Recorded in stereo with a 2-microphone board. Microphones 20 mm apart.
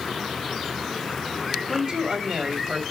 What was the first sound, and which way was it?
A woman speaking, 45° right (ahead or behind).